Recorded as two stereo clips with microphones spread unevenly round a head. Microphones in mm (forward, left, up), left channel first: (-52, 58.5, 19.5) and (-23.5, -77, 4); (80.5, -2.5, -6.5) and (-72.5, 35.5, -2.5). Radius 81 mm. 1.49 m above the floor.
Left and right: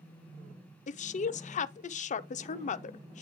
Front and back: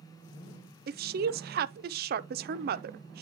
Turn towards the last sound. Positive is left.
turn(degrees=135)